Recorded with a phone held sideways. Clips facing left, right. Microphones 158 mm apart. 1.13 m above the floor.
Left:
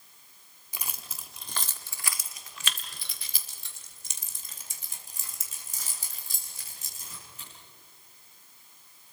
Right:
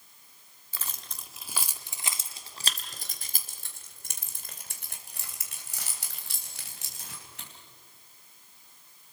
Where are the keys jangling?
15° left (ahead or behind), 1.6 m; by 7.5 s 75° right (ahead or behind), 5 m.